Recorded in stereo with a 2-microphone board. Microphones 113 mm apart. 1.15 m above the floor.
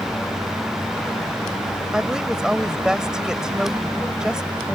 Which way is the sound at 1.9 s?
5° right (ahead or behind).